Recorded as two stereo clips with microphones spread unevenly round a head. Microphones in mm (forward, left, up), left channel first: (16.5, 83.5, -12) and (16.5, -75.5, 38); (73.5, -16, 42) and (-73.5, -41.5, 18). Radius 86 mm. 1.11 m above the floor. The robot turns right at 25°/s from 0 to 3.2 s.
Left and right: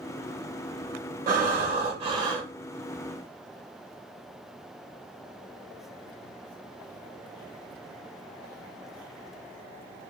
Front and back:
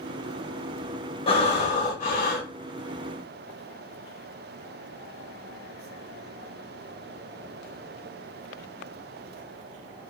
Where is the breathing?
50° right, 0.9 m; by 2.5 s 15° right, 0.9 m.